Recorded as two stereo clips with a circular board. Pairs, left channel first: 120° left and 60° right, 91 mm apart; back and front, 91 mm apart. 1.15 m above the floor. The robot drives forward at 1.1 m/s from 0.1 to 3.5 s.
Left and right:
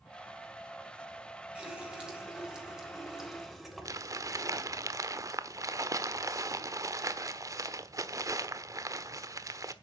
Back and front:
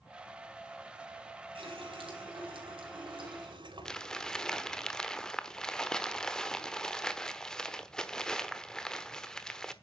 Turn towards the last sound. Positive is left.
turn(degrees=-100)